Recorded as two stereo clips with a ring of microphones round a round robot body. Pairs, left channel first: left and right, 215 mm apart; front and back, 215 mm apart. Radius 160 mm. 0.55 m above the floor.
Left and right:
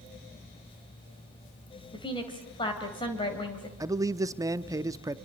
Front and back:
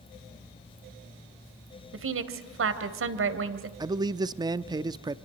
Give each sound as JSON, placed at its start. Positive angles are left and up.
{"t": 1.9, "sound": "a woman speaking", "azimuth_deg": 165, "distance_m": 2.5}
{"t": 3.8, "sound": "a man speaking", "azimuth_deg": -140, "distance_m": 0.6}